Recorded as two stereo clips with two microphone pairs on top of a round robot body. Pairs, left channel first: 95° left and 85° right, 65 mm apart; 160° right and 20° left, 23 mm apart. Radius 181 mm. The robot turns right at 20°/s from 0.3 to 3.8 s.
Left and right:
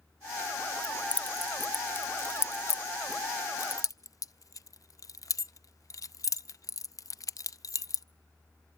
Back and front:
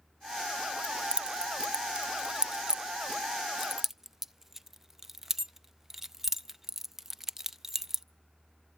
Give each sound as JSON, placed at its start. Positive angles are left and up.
{"t": 0.8, "sound": "keys jangling", "azimuth_deg": 20, "distance_m": 0.6}